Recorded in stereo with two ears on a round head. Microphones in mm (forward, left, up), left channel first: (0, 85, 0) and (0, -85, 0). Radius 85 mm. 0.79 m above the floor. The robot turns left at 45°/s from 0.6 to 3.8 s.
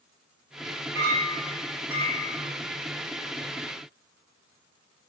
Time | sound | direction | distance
0.9 | a clink | 115° right | 1.5 m